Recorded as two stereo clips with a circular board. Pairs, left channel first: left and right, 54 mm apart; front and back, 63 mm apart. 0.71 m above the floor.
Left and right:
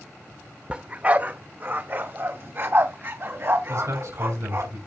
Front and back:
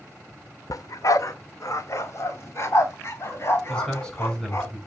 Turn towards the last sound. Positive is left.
turn(degrees=-75)